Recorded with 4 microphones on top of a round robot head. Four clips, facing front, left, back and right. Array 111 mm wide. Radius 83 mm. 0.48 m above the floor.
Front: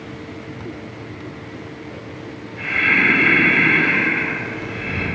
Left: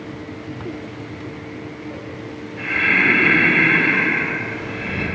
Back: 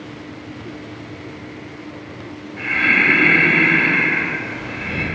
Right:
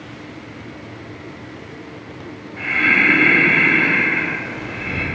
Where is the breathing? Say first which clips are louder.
Right 2 dB, back 1 dB; 125° right, 1.4 m.